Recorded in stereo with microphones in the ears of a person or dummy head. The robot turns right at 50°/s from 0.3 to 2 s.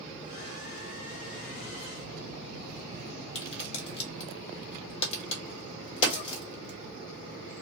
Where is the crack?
35° left (ahead or behind), 1.4 m.